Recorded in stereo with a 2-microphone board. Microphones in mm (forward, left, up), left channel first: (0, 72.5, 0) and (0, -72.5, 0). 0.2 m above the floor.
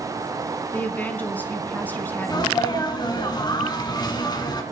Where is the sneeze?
30° left (ahead or behind), 1.9 m.